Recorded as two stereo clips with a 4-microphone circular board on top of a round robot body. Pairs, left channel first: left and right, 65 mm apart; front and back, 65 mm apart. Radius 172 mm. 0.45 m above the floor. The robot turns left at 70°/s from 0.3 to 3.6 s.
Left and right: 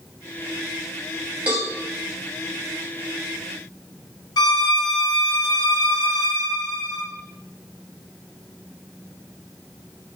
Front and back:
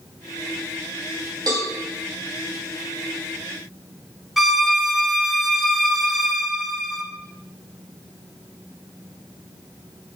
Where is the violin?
95° left, 0.6 m.